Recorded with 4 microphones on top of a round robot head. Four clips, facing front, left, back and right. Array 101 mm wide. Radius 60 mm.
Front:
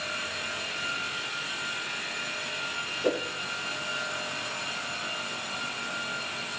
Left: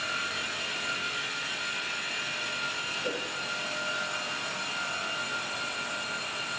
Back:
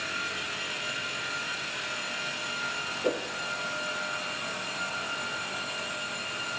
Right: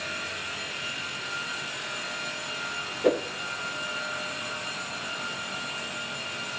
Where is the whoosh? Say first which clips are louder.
Right 12 dB, front 2 dB; 80° right, 0.6 m.